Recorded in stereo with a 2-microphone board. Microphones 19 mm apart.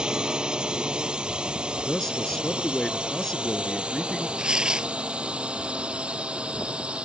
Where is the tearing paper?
45° right (ahead or behind).